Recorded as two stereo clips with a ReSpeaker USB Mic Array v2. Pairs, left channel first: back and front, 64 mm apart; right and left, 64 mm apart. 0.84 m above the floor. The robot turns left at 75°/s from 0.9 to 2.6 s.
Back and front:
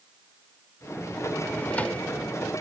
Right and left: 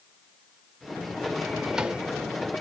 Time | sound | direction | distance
1.4 | a drawer | straight behind | 0.5 m